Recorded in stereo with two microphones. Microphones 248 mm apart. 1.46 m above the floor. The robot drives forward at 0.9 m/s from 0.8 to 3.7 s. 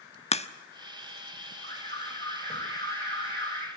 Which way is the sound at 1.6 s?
25° left (ahead or behind).